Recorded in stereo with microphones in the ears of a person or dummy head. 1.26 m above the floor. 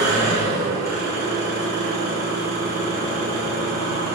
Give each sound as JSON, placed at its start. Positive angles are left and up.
{"t": 0.0, "sound": "an engine running", "side_deg": 15, "distance_m": 0.8}